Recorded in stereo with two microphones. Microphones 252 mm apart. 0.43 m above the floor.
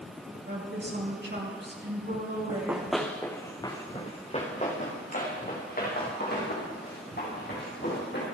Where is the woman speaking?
45° right (ahead or behind), 4.5 m.